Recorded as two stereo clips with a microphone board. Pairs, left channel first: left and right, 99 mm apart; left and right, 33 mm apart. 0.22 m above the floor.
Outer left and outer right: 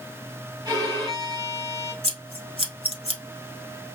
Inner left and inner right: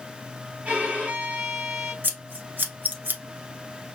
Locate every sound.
0.7 s a violin: 40° right (ahead or behind), 1.5 m
2.0 s scissors: 80° right, 0.8 m